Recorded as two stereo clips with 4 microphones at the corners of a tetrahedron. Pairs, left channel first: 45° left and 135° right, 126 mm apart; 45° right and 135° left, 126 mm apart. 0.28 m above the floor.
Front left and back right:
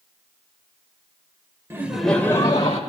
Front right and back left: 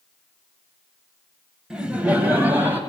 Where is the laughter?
155° right, 0.9 m; by 2.8 s 65° left, 1.1 m.